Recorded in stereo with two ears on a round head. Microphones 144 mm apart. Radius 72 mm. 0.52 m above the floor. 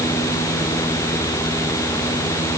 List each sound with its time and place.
Only background noise.